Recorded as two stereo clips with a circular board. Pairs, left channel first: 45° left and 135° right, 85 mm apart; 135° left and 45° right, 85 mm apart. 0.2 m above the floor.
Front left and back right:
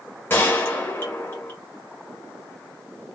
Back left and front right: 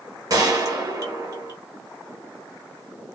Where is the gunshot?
15° right, 1.2 m.